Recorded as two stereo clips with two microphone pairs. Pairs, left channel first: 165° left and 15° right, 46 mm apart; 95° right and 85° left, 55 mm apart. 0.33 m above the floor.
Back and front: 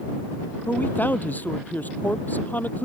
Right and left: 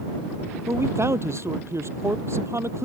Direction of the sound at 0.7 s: 115° left.